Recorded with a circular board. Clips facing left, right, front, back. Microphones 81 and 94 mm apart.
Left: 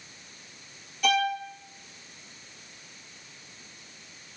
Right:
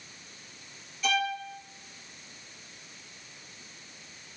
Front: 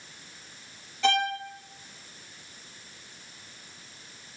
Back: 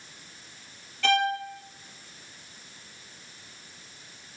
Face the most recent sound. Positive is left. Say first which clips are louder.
# left 4 dB, back 1 dB
turn(degrees=70)